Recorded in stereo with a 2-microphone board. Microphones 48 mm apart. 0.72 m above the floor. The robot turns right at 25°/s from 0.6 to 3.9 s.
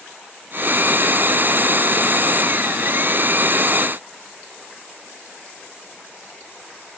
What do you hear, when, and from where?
Only background noise.